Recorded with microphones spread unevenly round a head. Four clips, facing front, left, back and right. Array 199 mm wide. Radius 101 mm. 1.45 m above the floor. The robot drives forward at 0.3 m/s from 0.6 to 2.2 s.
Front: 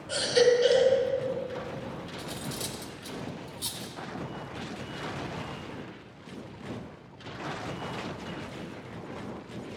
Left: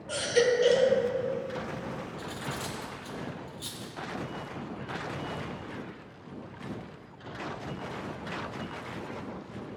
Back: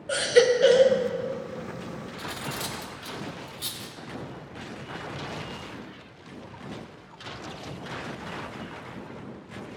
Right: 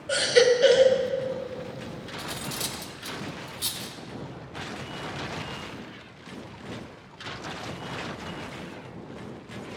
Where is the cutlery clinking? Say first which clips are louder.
Right 1 dB, back 5 dB; 135° right, 0.7 m.